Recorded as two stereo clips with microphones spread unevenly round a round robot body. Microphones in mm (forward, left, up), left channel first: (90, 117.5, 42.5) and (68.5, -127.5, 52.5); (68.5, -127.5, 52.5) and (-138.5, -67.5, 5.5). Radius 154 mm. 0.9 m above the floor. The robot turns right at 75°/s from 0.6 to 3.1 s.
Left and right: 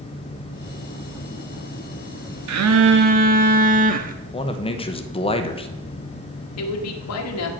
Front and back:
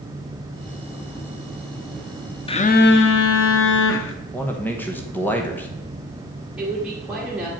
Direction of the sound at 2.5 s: 85° right.